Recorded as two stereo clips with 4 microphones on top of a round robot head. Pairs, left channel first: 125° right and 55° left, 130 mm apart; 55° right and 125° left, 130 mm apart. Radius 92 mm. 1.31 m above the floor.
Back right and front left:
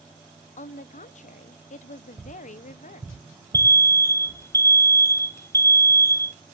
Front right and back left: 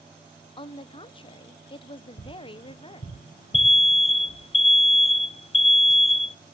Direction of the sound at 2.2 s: 25° right.